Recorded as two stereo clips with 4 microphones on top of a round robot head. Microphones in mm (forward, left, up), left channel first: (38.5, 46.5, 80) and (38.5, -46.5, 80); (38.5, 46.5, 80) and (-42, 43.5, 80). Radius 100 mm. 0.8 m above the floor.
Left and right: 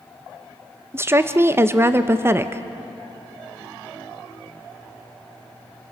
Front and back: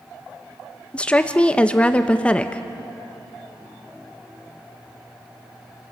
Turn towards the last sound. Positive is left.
turn(degrees=-60)